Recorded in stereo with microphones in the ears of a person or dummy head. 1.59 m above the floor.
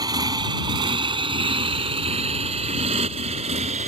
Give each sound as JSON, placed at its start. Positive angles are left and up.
{"t": 0.0, "sound": "a motorcycle", "side_deg": -20}